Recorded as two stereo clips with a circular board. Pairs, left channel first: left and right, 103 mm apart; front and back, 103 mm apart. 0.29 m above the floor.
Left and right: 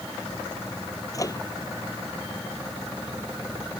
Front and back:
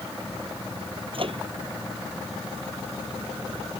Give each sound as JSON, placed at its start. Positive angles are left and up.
{"t": 1.1, "sound": "a microwave", "azimuth_deg": 145}